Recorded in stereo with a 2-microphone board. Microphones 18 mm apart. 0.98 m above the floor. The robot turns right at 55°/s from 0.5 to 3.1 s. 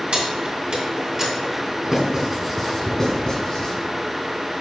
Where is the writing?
35° right (ahead or behind), 1.9 m; by 3.7 s 30° left (ahead or behind), 1.9 m.